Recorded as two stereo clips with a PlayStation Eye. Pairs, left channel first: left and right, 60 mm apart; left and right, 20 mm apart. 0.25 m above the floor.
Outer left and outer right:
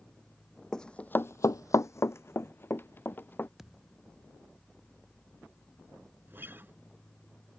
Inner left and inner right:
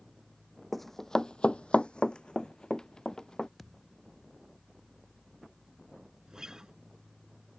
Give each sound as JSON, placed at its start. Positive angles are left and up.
{"t": 0.7, "sound": "running footsteps", "side_deg": 10}
{"t": 3.6, "sound": "a thud", "side_deg": -5}
{"t": 6.3, "sound": "a guitar", "side_deg": -35}